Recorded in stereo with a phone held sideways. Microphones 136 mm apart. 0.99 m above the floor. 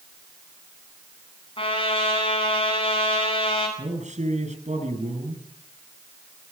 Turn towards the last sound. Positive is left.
turn(degrees=-60)  # may be behind; listen again after turning